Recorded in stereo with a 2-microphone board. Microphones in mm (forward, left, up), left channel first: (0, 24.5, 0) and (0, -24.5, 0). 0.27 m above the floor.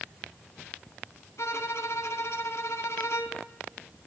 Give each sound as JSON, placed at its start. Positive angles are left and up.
{"t": 1.4, "sound": "a violin", "side_deg": 70, "distance_m": 0.8}